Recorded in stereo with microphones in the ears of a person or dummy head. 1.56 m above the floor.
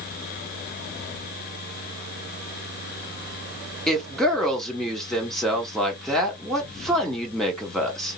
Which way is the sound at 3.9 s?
5° right (ahead or behind).